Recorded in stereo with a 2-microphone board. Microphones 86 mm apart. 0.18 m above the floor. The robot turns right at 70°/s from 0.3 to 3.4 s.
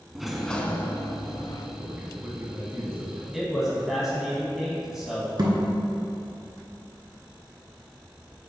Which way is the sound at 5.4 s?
50° right (ahead or behind).